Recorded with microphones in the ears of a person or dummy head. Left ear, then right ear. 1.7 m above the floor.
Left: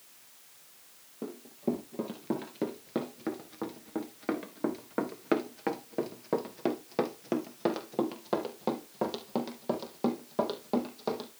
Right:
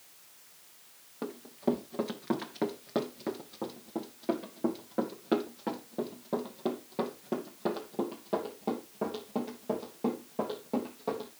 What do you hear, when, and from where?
1.2 s running footsteps: 25° right (ahead or behind), 2 m; by 11.3 s 65° left (ahead or behind), 4.5 m